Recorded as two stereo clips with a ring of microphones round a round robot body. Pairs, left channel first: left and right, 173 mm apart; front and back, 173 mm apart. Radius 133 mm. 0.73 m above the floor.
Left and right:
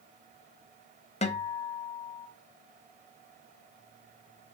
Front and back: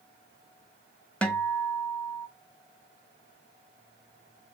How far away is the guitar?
About 0.9 m.